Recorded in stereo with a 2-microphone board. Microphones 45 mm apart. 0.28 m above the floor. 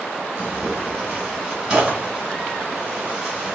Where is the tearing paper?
15° right (ahead or behind), 2.5 m.